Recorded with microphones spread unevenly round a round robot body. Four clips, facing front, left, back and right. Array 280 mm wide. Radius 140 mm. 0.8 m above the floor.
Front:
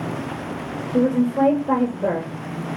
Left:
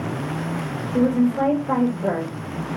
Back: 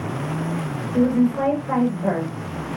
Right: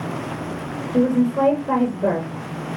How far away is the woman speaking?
About 1.4 m.